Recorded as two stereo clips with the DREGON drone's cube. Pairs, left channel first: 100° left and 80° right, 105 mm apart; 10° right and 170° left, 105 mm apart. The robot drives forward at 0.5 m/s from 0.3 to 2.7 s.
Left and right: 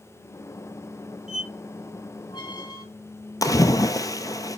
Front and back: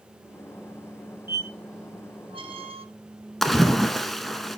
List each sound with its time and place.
1.3 s a squeak: 105° left, 0.6 m; by 2.9 s 145° left, 1.0 m
3.4 s a splash: 75° left, 0.6 m